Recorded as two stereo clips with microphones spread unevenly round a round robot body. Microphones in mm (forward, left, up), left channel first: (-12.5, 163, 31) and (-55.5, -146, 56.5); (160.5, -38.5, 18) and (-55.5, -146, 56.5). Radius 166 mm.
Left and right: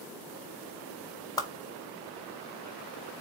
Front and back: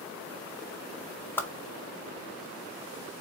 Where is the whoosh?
50° left, 0.6 m.